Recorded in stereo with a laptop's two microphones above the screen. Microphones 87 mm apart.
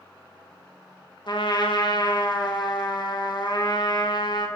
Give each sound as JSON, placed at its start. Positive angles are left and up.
{"t": 1.3, "sound": "a trumpet", "side_deg": 55, "distance_m": 1.0}